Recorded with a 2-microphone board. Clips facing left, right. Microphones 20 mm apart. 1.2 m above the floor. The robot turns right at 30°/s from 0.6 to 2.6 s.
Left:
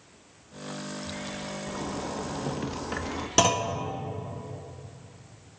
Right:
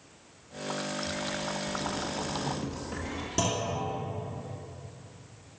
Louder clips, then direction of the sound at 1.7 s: Right 1 dB; 45° left (ahead or behind).